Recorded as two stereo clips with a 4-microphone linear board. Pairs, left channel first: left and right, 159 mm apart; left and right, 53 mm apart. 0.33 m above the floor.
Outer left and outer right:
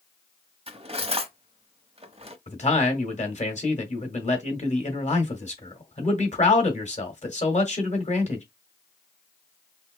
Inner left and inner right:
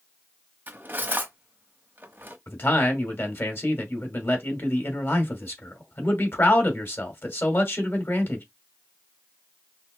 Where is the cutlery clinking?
40° right (ahead or behind), 0.9 m.